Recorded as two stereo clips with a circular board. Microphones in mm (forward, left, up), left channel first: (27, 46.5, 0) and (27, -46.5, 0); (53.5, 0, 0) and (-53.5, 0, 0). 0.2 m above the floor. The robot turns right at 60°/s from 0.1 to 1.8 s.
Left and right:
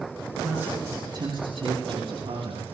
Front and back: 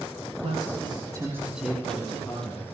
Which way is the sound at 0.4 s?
170° right.